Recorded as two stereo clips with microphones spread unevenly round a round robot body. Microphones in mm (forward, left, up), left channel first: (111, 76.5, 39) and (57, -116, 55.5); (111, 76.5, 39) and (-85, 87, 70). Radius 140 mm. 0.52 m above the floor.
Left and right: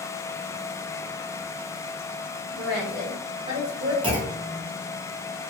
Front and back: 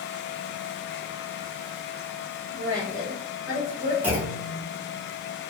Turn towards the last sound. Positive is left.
turn(degrees=-95)